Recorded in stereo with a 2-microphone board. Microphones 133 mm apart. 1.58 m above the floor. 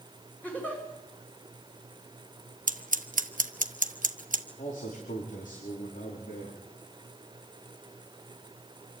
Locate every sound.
0.4 s a giggle: 10° left (ahead or behind), 6.5 m
2.7 s scissors: 85° right, 1.2 m
4.6 s a man speaking: 85° left, 4.5 m